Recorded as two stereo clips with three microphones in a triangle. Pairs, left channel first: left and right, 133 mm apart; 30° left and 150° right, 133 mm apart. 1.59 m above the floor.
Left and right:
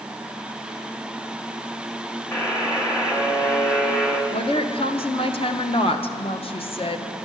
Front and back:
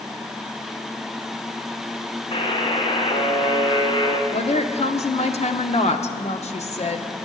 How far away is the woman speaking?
About 0.7 m.